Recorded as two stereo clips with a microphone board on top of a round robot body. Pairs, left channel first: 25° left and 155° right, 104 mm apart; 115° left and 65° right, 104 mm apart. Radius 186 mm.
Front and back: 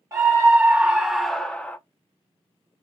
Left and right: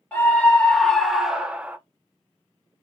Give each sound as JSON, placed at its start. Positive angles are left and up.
{"t": 0.1, "sound": "a scream", "azimuth_deg": 170, "distance_m": 1.2}